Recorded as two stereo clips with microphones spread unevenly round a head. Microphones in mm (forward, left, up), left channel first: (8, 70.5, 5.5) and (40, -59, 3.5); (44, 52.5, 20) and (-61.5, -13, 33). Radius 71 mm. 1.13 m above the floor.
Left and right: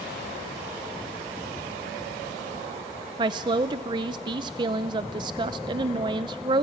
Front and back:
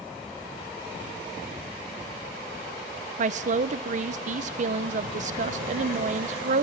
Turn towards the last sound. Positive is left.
turn(degrees=-130)